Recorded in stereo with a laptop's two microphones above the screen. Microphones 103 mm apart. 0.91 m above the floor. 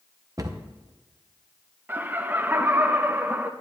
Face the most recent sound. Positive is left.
turn(degrees=-20)  # may be behind; listen again after turning